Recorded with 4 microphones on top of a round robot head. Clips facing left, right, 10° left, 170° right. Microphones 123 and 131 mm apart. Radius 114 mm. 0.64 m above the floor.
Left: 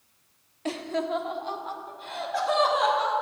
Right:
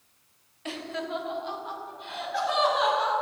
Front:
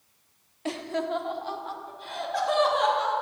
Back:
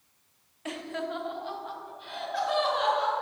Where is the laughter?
55° left, 1.2 m; by 3.1 s 50° left, 4 m.